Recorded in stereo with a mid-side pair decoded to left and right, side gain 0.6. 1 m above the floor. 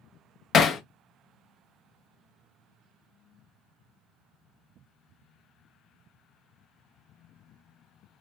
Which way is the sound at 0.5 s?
45° left.